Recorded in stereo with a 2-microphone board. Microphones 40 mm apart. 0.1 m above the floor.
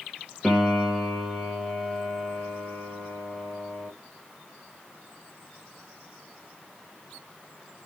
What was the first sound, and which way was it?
A piano, 5° left (ahead or behind).